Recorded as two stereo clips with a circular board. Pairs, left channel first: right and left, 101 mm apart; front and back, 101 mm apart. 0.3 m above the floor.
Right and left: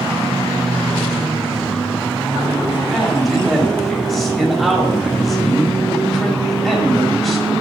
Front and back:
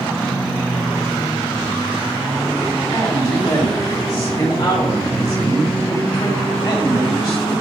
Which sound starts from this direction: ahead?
A man speaking, at 2.9 s.